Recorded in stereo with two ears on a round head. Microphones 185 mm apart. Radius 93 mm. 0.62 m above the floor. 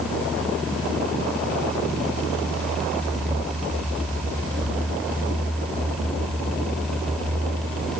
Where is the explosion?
No explosion in this recording.